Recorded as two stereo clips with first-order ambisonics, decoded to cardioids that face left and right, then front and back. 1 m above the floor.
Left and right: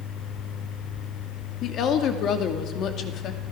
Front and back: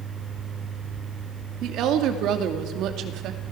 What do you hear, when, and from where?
1.6 s a woman speaking: 140° left, 2.5 m